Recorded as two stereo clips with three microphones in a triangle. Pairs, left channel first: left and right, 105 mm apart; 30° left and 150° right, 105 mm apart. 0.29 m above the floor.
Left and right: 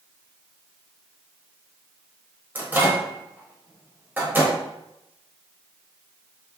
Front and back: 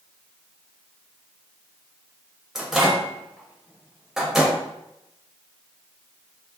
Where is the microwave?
75° right, 0.8 m.